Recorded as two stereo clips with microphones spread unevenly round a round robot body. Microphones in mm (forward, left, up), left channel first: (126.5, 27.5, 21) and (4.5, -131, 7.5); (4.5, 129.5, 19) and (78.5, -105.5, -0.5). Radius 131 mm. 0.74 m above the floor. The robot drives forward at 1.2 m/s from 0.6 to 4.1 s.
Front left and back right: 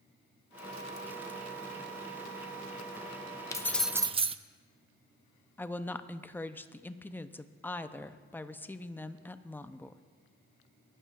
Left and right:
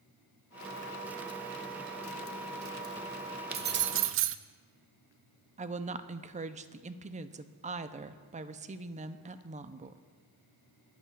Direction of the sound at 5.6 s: 30° right.